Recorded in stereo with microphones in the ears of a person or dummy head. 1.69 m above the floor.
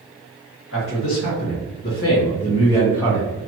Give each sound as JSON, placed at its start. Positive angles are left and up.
{"t": 0.7, "sound": "a man speaking", "side_deg": 75, "distance_m": 1.6}